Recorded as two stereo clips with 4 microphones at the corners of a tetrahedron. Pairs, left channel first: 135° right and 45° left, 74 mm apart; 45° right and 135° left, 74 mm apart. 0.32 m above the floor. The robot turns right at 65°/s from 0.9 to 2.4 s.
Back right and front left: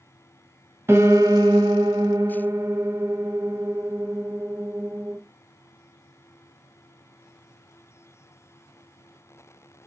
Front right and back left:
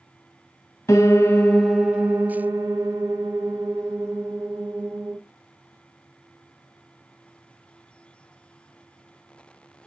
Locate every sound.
0.9 s a piano: 10° right, 0.7 m; by 5.2 s 90° left, 0.7 m